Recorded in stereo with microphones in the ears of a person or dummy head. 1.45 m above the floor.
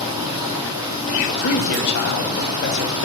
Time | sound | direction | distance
0.0 | running water | 20° right (ahead or behind) | 3 m
1.4 | a man speaking | 65° left (ahead or behind) | 2.0 m